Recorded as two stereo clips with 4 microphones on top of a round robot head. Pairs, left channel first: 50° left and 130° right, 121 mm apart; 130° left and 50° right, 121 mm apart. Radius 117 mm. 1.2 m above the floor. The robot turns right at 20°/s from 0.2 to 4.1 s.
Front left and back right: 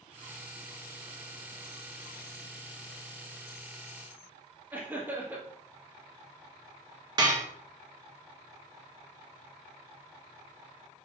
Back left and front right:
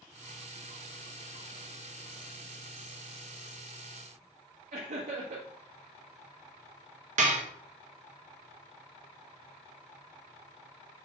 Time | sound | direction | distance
4.7 | laughter | 55° right | 1.7 m
7.2 | dishes clattering | 75° right | 0.7 m